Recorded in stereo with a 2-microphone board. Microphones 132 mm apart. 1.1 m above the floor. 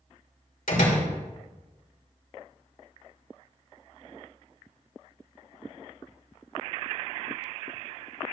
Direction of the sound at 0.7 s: 85° left.